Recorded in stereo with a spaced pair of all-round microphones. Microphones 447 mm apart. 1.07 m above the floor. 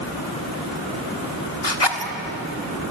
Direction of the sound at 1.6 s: 65° left (ahead or behind).